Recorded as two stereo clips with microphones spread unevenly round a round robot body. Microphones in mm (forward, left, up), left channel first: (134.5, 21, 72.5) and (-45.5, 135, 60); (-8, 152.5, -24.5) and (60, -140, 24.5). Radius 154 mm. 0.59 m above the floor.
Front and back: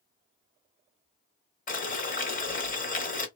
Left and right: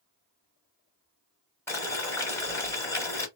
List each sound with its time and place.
1.7 s boiling: 20° left, 1.2 m